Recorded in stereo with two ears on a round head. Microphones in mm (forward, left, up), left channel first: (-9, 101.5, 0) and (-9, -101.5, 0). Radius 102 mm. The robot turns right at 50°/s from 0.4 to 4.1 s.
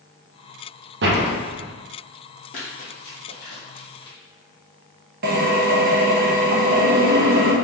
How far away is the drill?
About 0.6 m.